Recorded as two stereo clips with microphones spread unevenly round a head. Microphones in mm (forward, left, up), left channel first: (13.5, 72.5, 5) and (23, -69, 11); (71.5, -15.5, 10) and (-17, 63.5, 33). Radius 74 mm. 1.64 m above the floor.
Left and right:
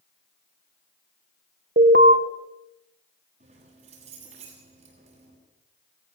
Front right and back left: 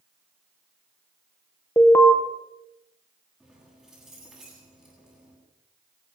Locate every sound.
1.8 s an alarm: 115° right, 3 m
3.4 s keys jangling: 135° right, 8 m